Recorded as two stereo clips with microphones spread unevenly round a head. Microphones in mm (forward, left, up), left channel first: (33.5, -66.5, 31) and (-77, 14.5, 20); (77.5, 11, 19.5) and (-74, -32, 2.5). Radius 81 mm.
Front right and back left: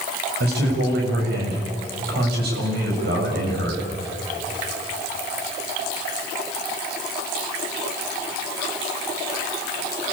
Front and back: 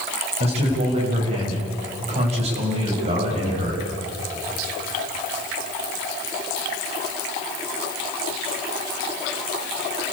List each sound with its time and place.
0.4 s a man speaking: 140° left, 7 m